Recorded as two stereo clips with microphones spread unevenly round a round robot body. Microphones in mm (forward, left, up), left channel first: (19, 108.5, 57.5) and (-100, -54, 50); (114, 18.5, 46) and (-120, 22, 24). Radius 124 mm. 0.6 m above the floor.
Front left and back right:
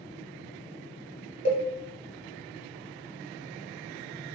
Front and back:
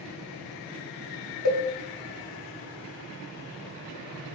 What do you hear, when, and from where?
1.4 s a cowbell: 10° right, 1.1 m